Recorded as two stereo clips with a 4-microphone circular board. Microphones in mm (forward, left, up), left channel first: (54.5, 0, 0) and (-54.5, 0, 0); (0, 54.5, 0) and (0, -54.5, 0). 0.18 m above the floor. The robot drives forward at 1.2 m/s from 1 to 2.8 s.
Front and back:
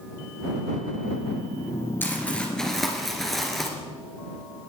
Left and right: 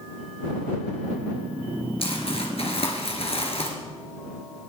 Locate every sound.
2.0 s crumpling: 70° left, 3 m; by 3.7 s 90° left, 3 m